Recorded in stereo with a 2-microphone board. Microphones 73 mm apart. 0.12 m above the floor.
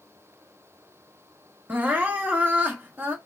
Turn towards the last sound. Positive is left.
turn(degrees=-25)  # may be behind; listen again after turning